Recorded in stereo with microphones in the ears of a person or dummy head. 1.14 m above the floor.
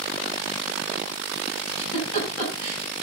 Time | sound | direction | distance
1.7 | a giggle | 40° left (ahead or behind) | 8 m